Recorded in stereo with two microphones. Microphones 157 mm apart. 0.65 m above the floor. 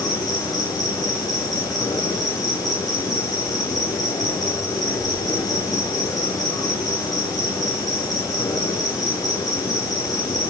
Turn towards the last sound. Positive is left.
turn(degrees=25)  # may be behind; listen again after turning